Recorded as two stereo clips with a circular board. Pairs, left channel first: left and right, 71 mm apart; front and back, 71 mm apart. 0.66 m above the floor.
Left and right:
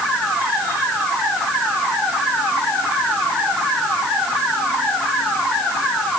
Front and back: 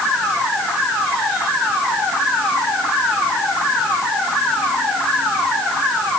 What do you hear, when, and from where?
Only background noise.